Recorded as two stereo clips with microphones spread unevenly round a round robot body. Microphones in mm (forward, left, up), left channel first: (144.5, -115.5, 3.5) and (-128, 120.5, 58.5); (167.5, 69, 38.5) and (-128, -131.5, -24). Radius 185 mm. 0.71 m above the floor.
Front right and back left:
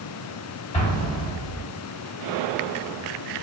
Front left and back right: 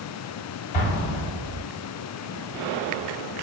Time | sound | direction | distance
0.7 | an explosion | 35° left | 3.5 m